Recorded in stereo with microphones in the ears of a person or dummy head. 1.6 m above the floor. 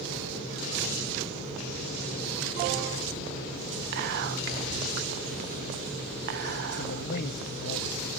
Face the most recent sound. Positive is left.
turn(degrees=60)  # may be behind; listen again after turning